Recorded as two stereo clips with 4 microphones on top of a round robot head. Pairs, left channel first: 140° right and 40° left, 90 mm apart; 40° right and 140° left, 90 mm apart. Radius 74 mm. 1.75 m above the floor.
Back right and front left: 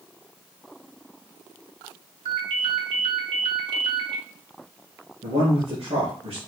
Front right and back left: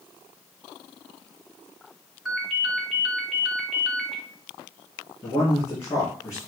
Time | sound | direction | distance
2.2 | a ringtone | 50° left | 3 m
5.2 | a man speaking | 20° left | 4.5 m